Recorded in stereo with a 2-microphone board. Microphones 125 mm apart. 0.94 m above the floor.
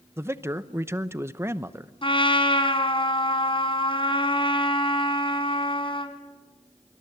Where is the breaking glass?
I don't hear breaking glass.